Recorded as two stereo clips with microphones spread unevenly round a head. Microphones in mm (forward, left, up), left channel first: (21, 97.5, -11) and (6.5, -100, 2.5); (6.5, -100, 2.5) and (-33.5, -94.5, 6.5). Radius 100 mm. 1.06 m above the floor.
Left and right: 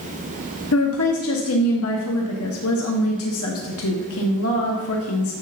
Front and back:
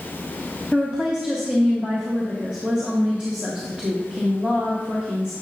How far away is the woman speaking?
About 1.0 m.